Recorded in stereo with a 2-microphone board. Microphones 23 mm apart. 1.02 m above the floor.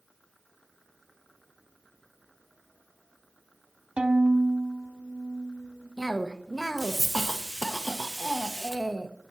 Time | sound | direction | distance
4.0 | a violin | 45° right (ahead or behind) | 0.9 m
6.0 | a cough | 5° right (ahead or behind) | 0.8 m